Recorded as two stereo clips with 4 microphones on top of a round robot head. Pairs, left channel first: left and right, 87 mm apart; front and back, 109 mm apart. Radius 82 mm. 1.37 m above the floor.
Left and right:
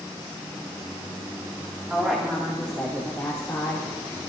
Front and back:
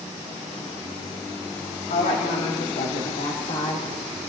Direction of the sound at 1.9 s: 10° right.